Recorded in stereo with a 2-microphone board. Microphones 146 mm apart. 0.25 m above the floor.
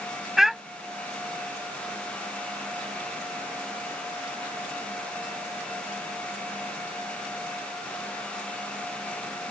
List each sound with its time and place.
0.4 s a child speaking: centre (ahead or behind)